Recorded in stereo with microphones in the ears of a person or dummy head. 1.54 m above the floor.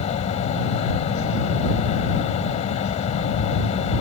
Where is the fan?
35° left (ahead or behind).